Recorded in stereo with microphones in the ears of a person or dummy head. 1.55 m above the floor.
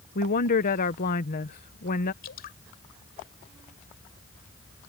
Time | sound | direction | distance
0.1 | a woman speaking | 40° left (ahead or behind) | ?
2.2 | dripping | 60° left (ahead or behind) | ?